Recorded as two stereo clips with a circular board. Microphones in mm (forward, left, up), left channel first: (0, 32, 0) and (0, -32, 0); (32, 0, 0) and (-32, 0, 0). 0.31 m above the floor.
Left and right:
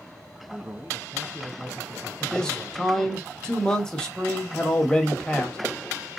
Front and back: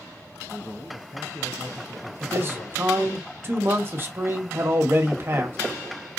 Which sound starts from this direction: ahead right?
A man speaking, at 0.5 s.